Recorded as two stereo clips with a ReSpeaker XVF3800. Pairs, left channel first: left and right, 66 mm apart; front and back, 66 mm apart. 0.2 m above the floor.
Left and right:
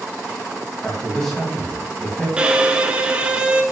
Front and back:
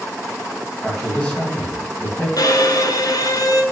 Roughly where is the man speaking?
Ahead left.